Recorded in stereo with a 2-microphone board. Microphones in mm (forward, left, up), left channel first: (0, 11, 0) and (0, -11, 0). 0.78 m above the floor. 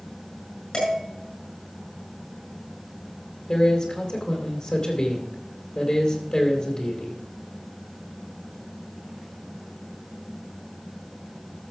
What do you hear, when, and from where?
0.7 s dishes clattering: 50° left (ahead or behind), 6.5 m
3.5 s a man speaking: 40° left (ahead or behind), 3 m